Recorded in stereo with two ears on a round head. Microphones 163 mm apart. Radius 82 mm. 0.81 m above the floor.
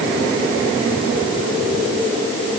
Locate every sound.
Only background noise.